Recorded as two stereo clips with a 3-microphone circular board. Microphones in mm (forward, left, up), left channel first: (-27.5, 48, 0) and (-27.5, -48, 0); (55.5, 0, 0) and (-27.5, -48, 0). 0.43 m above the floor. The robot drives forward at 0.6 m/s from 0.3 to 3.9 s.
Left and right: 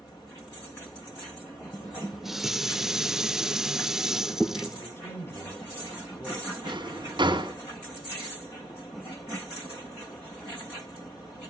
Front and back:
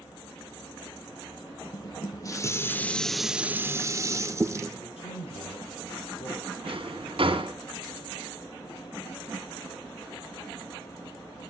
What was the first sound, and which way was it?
Dishes clattering, 5° right.